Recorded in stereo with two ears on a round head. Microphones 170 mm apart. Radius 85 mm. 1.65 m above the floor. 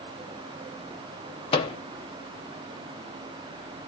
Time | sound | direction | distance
1.5 | a microwave | 30° left (ahead or behind) | 0.5 m